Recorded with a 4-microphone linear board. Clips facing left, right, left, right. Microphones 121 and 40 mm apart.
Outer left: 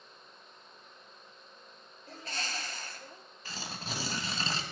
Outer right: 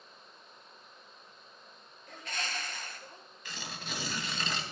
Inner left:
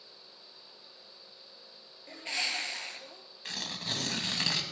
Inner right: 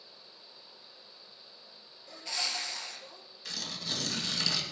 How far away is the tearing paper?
About 1.9 m.